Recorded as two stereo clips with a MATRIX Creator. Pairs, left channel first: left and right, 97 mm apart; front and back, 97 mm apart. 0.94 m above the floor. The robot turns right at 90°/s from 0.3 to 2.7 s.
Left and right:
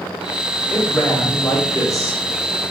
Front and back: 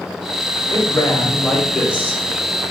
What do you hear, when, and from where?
0.7 s a man speaking: straight ahead, 0.8 m; by 2.2 s 135° left, 0.8 m